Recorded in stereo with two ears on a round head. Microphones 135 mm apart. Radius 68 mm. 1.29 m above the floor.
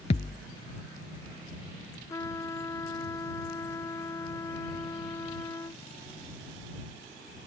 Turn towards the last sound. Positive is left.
turn(degrees=20)  # may be behind; listen again after turning